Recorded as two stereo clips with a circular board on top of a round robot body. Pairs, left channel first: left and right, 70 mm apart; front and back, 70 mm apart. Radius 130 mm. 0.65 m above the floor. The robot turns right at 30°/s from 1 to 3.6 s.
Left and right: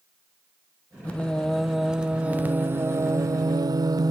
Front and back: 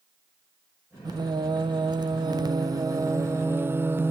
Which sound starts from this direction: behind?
Singing, at 1.1 s.